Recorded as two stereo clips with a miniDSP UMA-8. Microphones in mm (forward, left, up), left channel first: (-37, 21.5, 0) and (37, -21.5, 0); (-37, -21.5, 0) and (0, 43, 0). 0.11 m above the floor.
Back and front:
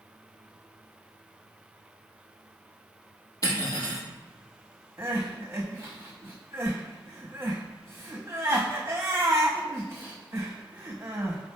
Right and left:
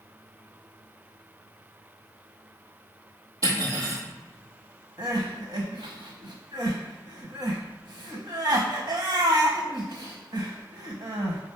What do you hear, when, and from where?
3.4 s cutlery clinking: 105° left, 1.8 m
5.0 s crying: 30° left, 1.2 m